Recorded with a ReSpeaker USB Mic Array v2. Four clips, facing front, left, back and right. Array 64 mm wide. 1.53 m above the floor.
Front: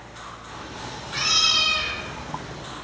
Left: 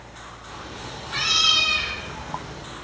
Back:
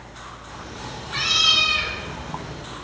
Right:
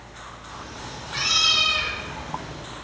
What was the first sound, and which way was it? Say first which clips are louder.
A cat meowing: left 1 dB, back 1 dB; 60° left.